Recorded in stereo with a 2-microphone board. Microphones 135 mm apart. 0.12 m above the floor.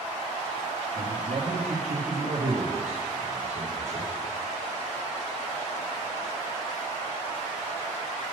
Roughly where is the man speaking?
Right.